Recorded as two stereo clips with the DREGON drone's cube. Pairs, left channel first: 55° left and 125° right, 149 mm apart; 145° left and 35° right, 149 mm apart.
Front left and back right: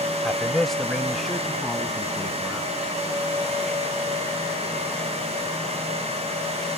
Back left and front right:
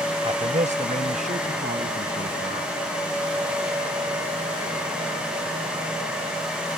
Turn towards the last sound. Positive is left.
turn(degrees=-30)